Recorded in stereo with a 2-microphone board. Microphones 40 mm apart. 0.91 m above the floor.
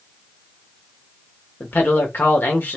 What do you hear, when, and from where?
1.6 s a man speaking: 65° left (ahead or behind), 1.5 m